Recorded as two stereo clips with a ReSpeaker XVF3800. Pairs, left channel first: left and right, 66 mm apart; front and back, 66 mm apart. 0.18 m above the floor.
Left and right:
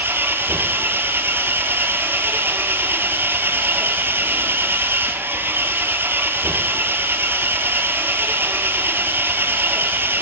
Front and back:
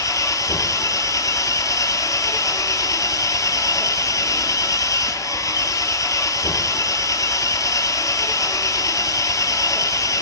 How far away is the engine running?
About 0.9 m.